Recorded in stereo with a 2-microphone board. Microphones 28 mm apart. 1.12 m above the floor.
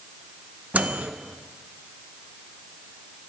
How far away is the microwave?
About 0.6 m.